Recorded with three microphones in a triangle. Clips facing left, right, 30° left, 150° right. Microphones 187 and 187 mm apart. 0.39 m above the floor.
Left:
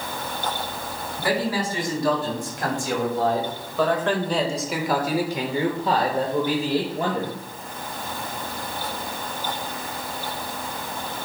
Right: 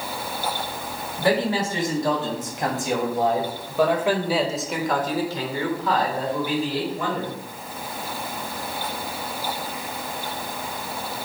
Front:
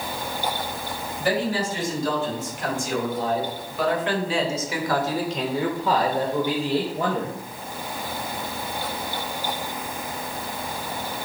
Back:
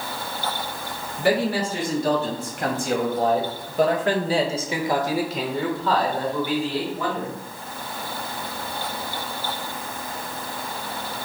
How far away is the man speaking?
About 3.5 m.